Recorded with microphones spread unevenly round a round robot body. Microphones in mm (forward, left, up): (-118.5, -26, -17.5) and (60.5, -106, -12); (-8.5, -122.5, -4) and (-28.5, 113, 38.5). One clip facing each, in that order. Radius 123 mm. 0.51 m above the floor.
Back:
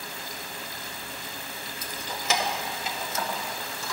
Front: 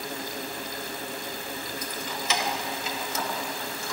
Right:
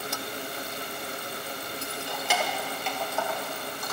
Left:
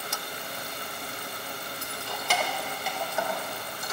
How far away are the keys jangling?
About 1.4 m.